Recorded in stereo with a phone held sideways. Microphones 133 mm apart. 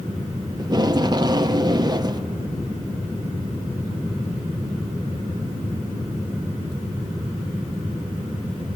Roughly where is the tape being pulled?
Right.